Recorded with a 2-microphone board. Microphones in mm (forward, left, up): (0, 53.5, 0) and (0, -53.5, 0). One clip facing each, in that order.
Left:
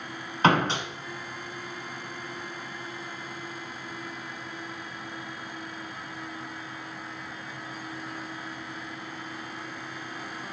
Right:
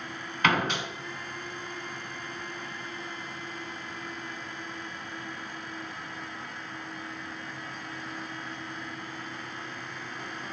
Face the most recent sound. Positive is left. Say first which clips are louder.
# left 4 dB
turn(degrees=30)  # may be behind; listen again after turning